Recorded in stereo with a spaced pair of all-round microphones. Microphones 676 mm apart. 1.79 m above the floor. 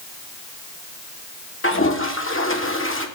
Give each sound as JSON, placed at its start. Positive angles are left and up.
{"t": 1.6, "sound": "a toilet flushing", "side_deg": 20, "distance_m": 1.4}